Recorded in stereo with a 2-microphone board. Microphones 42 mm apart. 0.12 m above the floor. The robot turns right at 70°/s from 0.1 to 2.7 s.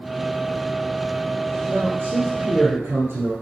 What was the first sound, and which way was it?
A man speaking, 145° right.